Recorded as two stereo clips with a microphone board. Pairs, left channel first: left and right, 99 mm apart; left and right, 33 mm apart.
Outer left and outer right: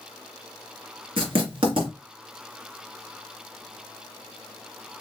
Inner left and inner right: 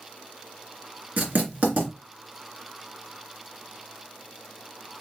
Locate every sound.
1.2 s writing: 60° right (ahead or behind), 3 m